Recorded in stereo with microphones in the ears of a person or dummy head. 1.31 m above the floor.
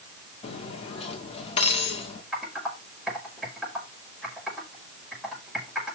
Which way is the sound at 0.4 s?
35° left (ahead or behind).